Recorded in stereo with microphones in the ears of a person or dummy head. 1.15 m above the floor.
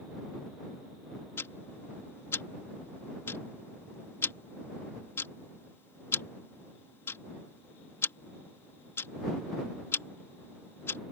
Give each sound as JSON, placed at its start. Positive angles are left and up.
{"t": 1.4, "sound": "ticking", "side_deg": 10}